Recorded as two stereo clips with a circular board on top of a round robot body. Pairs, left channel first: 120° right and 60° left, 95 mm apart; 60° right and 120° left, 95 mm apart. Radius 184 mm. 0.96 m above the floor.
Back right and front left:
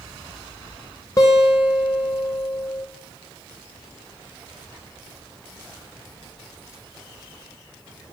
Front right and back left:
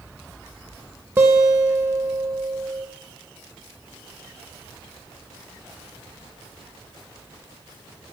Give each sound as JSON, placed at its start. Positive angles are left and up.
{"t": 1.2, "sound": "a guitar", "azimuth_deg": -175, "distance_m": 1.0}